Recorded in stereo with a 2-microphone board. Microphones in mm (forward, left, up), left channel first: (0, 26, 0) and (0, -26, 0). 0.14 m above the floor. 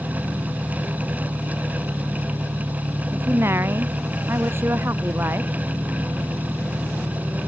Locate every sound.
0.0 s an engine running: 50° right (ahead or behind)
3.1 s a woman speaking: 45° right (ahead or behind)